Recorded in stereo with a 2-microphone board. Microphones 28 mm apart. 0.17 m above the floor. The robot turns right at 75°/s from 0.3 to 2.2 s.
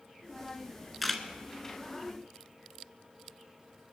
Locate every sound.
1.0 s a camera shutter: centre (ahead or behind), 1.2 m; by 1.2 s 15° left (ahead or behind), 1.2 m